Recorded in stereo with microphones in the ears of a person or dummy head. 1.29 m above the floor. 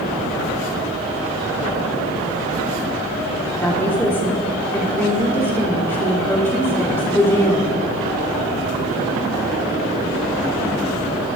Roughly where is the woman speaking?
Centre.